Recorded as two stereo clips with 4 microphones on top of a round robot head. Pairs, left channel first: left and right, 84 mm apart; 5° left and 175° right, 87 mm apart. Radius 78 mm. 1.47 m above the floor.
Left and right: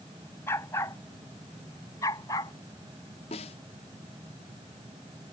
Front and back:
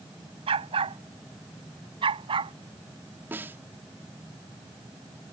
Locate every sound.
0.5 s a dog barking: 160° left; by 2.5 s 155° left
3.3 s a snare drum: 115° left